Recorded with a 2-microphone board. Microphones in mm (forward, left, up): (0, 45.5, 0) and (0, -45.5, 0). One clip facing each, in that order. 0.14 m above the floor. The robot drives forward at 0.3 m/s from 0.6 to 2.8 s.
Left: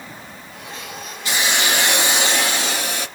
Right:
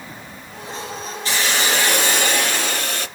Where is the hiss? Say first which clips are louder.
Even; 20° left (ahead or behind), 2 m; by 3.1 s 15° left (ahead or behind), 2.5 m.